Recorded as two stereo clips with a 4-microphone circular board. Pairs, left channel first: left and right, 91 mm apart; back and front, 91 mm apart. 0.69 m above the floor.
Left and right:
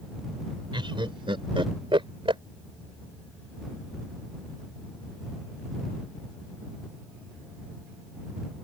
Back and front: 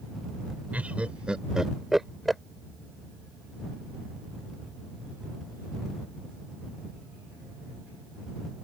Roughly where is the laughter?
Right.